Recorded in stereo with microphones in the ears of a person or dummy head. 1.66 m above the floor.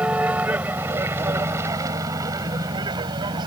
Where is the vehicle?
5° right (ahead or behind); by 3.5 s 25° right (ahead or behind).